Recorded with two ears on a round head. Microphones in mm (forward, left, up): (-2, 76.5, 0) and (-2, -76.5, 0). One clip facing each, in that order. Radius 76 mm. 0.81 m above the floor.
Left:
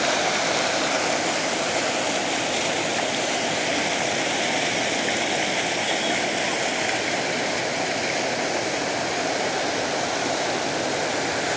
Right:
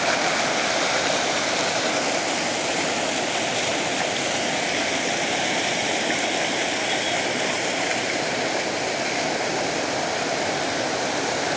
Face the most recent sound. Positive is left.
No sound to turn to.